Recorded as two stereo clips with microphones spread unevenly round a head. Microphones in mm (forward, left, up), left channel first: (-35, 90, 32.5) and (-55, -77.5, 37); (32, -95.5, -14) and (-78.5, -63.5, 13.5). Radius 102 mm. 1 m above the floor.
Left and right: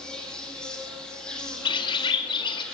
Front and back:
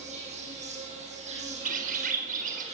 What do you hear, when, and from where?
0.0 s an insect: 170° left, 6 m
1.6 s a bird: 145° left, 2.5 m